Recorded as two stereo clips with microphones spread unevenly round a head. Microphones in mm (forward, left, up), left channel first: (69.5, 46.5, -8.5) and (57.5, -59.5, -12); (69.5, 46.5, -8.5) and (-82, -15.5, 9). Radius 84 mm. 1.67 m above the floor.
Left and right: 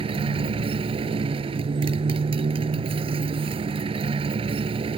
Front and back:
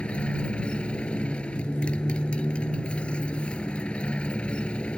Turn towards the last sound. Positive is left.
turn(degrees=-60)